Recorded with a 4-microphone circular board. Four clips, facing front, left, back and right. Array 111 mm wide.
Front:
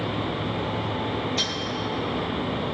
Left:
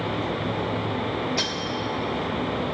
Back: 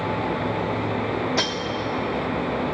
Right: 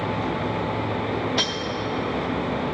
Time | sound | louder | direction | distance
1.4 | cutlery clinking | right 2 dB, back 5 dB | 150° right | 0.9 m